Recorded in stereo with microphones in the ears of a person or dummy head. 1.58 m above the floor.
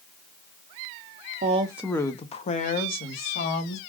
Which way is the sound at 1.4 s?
40° right (ahead or behind).